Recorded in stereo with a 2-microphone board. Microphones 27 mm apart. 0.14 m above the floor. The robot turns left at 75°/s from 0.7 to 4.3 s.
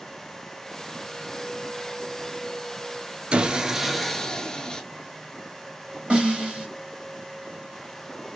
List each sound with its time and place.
3.3 s sawing: 130° right, 0.6 m; by 4.8 s 155° left, 0.6 m
6.1 s a snare drum: 45° right (ahead or behind), 2 m